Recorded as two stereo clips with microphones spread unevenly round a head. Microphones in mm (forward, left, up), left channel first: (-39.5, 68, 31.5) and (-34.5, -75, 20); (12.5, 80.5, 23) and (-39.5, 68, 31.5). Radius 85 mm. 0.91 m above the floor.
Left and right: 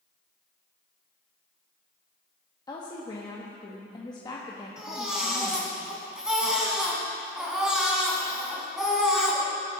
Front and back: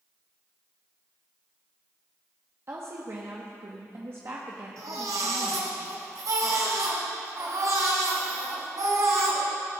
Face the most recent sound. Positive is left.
turn(degrees=-175)